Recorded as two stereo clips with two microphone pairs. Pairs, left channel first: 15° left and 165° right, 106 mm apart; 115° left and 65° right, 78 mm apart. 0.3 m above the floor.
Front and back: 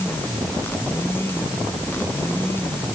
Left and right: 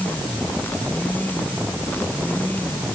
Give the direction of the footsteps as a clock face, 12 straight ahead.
I don't hear footsteps.